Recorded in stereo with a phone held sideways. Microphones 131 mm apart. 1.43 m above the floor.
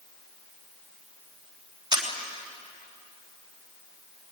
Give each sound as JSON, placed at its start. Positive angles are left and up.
{"t": 1.9, "sound": "a camera shutter", "side_deg": -35, "distance_m": 3.0}